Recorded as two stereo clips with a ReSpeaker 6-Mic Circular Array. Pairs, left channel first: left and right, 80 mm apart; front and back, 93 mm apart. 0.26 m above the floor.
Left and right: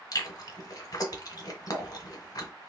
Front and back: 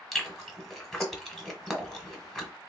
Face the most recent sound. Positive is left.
turn(degrees=90)